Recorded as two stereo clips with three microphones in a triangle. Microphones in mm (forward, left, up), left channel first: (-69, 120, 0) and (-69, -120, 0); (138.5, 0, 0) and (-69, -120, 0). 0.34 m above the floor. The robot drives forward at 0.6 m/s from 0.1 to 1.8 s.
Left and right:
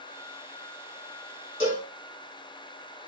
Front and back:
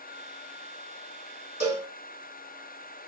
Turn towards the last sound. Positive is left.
turn(degrees=150)